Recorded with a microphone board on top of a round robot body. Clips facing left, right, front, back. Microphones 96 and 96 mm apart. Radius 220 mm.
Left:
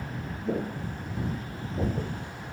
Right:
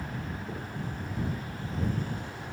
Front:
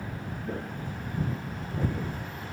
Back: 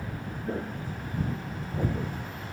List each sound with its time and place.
0.5 s footsteps: 100° left; by 2.1 s 105° left